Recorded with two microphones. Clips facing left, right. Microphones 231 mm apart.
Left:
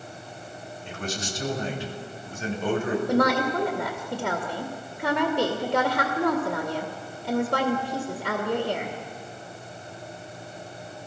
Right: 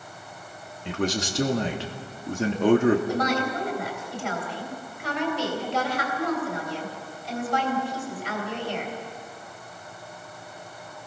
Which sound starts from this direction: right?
A man speaking, at 0.8 s.